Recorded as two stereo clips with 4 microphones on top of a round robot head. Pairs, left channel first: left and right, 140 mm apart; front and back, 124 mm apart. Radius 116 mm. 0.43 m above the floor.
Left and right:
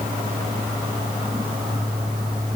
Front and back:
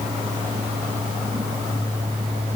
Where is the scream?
I don't hear a scream.